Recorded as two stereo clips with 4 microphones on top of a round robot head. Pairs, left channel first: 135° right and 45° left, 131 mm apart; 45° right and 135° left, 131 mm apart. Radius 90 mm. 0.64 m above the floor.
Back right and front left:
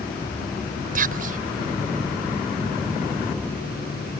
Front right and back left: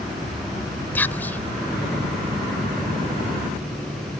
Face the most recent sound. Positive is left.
turn(degrees=30)